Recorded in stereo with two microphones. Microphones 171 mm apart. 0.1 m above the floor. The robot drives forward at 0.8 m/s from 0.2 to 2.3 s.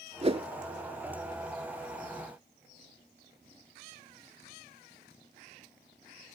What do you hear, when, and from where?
0.2 s a whoosh: 35° right (ahead or behind), 0.5 m